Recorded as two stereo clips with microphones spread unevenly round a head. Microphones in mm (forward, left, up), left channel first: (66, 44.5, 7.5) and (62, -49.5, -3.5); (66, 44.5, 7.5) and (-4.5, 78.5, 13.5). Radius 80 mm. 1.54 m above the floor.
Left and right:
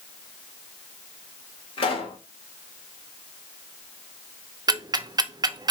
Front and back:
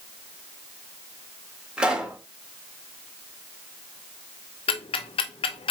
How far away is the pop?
About 2.5 m.